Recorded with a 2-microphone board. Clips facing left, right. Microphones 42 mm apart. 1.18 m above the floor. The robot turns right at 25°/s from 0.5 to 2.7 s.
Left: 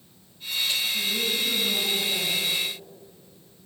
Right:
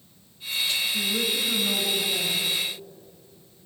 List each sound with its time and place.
0.9 s a woman speaking: 40° right, 5 m; by 2.5 s 5° left, 5 m